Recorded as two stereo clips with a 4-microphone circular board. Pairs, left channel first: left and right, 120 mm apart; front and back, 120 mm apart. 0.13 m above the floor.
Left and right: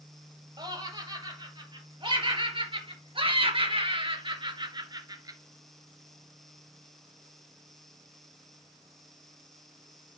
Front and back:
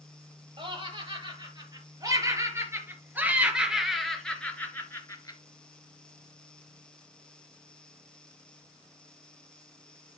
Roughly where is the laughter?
Behind right.